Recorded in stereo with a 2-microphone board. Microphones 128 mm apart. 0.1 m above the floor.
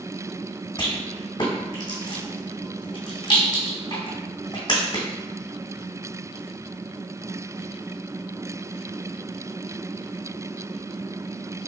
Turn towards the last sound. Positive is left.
turn(degrees=35)  # may be behind; listen again after turning